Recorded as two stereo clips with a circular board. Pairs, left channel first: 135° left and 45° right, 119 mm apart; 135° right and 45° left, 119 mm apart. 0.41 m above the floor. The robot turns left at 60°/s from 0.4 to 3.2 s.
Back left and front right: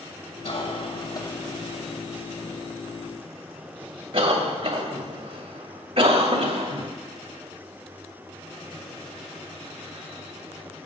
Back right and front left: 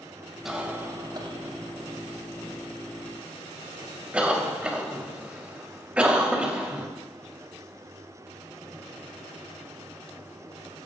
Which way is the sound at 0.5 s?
130° left.